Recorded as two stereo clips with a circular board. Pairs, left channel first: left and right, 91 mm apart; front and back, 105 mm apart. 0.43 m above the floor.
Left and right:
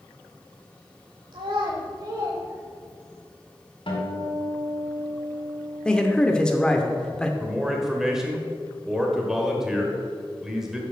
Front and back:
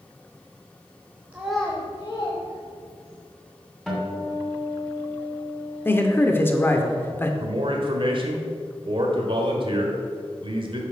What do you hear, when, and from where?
1.3 s a child speaking: 105° right, 0.9 m; by 3.2 s 10° right, 2 m
3.9 s a guitar: 90° left, 2.5 m
5.8 s a man speaking: 25° left, 0.8 m
7.4 s a man speaking: 175° right, 1.3 m